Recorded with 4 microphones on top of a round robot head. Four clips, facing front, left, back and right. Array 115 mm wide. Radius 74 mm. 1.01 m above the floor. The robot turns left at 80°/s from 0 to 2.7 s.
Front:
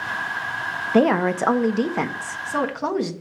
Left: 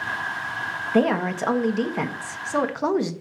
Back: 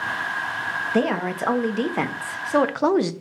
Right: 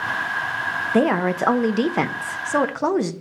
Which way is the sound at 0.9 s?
20° right.